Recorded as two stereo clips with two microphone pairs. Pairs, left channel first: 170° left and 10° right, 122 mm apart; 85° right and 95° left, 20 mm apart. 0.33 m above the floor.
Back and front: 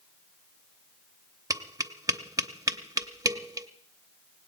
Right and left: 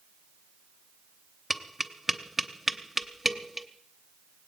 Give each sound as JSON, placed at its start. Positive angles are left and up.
{"t": 1.5, "sound": "tapping", "azimuth_deg": 25, "distance_m": 0.7}